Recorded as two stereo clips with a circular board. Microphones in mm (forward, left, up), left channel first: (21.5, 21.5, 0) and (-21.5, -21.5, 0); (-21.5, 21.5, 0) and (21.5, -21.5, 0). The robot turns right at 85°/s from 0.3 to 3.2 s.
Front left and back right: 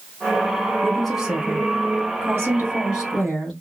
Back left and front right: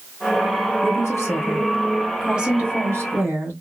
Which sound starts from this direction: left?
A woman speaking, at 0.8 s.